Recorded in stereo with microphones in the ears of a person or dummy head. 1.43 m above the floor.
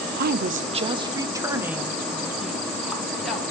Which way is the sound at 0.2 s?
60° right (ahead or behind).